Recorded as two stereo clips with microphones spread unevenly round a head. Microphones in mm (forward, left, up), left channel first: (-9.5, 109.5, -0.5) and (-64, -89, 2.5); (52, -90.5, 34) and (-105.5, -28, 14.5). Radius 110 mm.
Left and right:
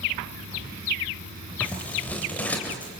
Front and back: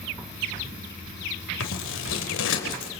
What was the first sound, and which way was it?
Scissors, 10° right.